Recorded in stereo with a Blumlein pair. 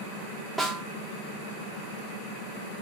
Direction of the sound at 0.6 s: Straight ahead.